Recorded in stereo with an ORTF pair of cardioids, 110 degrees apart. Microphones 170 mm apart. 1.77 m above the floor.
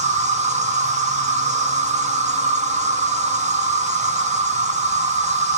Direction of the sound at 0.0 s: 45° right.